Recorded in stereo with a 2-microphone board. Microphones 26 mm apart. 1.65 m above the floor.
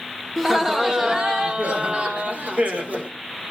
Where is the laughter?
10° right (ahead or behind), 1.5 m; by 3.1 s 85° right, 2 m.